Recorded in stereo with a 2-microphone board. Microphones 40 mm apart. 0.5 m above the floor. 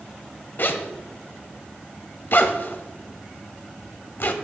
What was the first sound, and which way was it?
A zipper, 55° left (ahead or behind).